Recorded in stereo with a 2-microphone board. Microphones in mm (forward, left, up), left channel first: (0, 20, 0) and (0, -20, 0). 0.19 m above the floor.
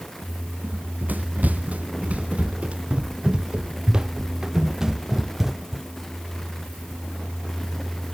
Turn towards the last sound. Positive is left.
turn(degrees=-5)  # may be behind; listen again after turning